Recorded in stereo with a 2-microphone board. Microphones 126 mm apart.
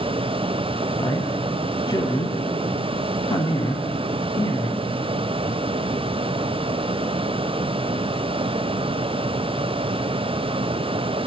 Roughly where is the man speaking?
Left.